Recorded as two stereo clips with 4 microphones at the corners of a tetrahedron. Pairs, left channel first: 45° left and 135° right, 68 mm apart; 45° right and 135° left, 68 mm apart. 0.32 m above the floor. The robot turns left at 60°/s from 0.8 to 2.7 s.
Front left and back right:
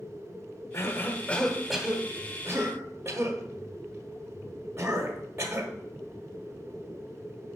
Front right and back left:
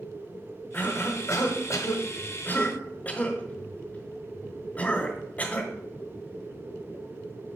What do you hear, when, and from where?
0.7 s a cough: 20° left, 1.2 m; by 5.7 s 95° right, 1.2 m